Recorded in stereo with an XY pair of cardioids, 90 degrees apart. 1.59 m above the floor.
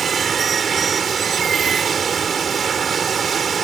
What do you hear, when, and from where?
0.0 s running water: 50° right